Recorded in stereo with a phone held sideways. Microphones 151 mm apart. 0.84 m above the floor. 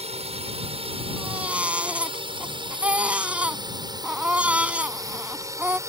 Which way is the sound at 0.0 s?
45° right (ahead or behind).